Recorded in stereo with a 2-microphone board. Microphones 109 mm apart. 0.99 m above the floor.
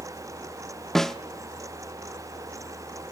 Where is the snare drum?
5° left (ahead or behind), 0.6 m.